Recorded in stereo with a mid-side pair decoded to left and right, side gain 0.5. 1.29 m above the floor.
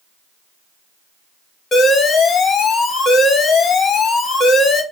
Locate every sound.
1.7 s an alarm: 45° left, 1.3 m